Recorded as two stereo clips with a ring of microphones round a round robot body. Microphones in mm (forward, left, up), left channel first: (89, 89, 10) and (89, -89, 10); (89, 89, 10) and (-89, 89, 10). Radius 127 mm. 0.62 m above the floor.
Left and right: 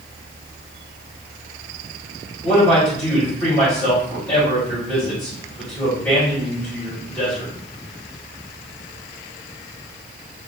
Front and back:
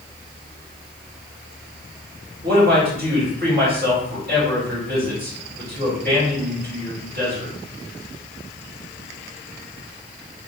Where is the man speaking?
175° left, 1.7 m.